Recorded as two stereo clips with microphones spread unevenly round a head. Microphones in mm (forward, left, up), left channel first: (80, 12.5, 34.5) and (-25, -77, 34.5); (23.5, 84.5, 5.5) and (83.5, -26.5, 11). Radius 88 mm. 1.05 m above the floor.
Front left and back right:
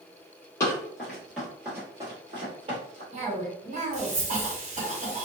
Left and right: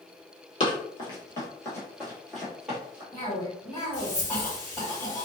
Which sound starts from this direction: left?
Running footsteps, at 0.6 s.